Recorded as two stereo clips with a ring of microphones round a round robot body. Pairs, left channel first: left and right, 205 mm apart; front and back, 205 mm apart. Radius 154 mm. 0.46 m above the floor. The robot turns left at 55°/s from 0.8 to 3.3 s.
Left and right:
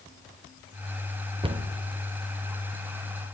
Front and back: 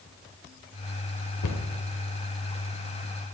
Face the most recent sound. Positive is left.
turn(degrees=-125)